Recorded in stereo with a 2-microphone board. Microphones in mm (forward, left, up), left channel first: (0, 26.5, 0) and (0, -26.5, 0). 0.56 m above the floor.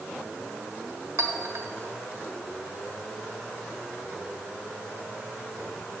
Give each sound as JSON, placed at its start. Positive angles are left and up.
{"t": 1.2, "sound": "a clink", "side_deg": -70, "distance_m": 1.1}